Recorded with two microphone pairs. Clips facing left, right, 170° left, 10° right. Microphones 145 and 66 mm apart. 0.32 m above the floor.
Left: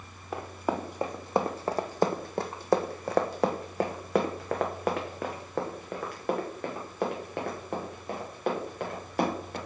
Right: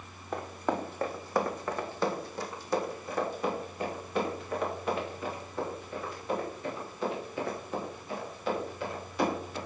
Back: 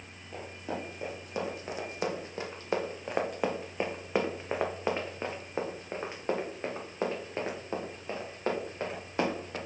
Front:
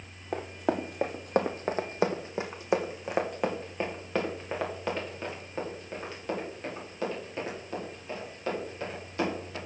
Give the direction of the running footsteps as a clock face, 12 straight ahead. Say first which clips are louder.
Left 1 dB, front 8 dB; 12 o'clock.